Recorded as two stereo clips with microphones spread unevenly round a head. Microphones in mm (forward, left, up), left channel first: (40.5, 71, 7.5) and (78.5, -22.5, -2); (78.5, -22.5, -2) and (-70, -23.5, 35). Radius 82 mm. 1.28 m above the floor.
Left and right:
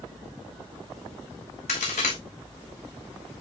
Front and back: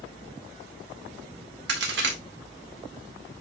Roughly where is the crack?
Behind left.